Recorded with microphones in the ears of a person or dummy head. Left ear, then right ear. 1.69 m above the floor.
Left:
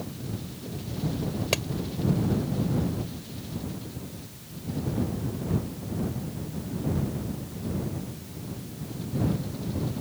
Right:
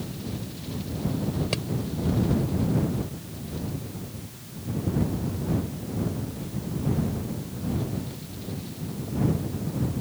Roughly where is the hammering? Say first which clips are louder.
Left 6 dB; left.